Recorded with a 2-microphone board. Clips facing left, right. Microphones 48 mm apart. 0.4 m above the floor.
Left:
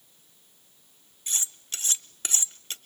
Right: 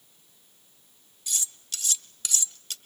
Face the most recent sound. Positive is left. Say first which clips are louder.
# left 1 dB
turn(degrees=30)  # may be behind; listen again after turning